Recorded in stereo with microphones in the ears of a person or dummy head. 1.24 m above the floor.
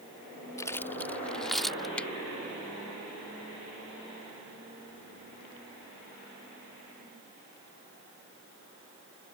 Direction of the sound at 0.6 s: 15° left (ahead or behind).